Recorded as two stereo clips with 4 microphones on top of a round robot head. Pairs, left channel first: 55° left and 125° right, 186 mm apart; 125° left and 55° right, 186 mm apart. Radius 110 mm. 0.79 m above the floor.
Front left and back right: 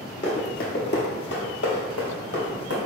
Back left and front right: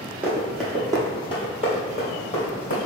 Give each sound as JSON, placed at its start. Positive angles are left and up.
{"t": 0.2, "sound": "running footsteps", "azimuth_deg": 25, "distance_m": 0.8}